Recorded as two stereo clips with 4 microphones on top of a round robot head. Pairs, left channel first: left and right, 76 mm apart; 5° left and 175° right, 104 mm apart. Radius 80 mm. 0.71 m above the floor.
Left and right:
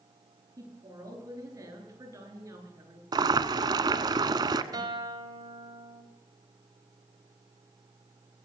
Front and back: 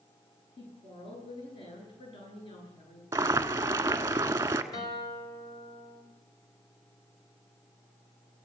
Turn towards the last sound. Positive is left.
turn(degrees=-55)